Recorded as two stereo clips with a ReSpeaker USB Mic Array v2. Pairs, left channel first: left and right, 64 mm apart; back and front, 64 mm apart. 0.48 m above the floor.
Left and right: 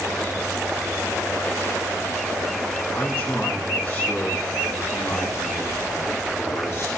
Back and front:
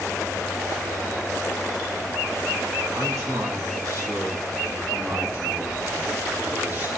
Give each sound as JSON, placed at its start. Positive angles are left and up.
{"t": 2.9, "sound": "a man speaking", "azimuth_deg": 30, "distance_m": 3.5}